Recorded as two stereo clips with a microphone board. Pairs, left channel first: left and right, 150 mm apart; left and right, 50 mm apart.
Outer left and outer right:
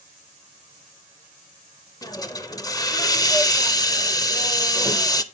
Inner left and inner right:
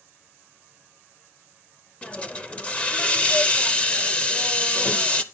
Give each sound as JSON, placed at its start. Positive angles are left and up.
{"t": 2.0, "sound": "a hiss", "side_deg": 25, "distance_m": 0.8}